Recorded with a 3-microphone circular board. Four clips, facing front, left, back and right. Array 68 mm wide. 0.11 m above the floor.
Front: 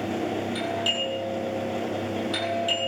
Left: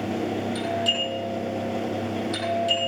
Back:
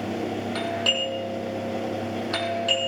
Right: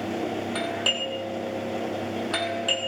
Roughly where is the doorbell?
Behind right.